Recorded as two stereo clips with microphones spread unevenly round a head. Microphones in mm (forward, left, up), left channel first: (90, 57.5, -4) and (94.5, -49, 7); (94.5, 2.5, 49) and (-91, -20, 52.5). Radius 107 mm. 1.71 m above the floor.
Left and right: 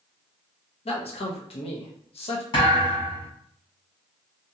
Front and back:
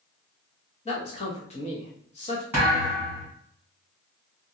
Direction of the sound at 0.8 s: 65° left.